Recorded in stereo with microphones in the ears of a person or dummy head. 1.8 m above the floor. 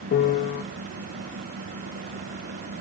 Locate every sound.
0.1 s a piano: 40° left (ahead or behind), 0.6 m